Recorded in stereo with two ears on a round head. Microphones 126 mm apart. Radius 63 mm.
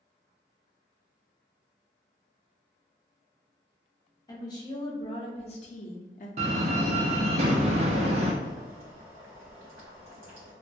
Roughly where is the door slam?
Right.